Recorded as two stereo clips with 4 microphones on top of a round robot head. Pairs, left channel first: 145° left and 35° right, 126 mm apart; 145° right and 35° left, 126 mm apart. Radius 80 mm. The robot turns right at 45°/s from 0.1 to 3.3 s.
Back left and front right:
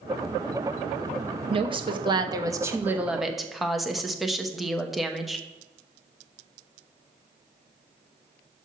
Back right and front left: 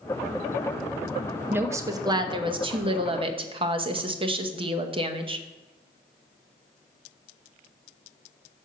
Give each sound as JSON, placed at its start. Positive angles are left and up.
{"t": 1.5, "sound": "a woman speaking", "azimuth_deg": -30, "distance_m": 0.9}